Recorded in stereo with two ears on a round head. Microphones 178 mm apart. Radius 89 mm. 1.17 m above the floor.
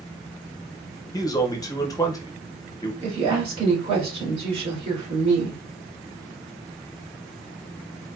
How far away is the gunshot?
I don't hear a gunshot.